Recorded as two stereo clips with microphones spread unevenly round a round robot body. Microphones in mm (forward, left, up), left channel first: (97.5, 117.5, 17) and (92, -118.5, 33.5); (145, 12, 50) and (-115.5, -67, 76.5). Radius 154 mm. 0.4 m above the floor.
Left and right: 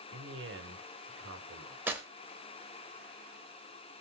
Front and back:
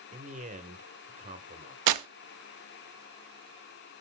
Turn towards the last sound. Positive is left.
turn(degrees=-175)